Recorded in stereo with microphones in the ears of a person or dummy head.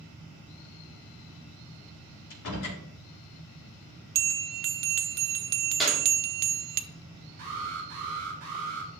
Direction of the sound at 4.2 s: 50° right (ahead or behind).